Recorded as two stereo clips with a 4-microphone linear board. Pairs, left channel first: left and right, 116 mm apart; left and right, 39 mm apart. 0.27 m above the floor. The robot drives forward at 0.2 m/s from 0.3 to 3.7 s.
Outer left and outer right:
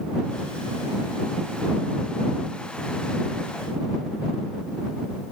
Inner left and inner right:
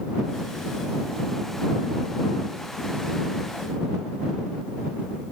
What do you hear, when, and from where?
Only background noise.